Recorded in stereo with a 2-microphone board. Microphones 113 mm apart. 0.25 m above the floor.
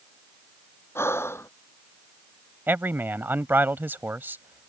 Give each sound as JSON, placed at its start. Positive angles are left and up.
{"t": 0.9, "sound": "breathing", "side_deg": 20}
{"t": 2.7, "sound": "a man speaking", "side_deg": -20}